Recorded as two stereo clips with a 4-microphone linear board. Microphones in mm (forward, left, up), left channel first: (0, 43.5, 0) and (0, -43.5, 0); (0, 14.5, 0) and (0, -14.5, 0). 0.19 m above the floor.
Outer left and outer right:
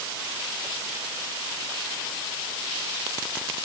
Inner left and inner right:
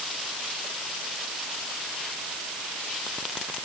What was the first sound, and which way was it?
Only background noise.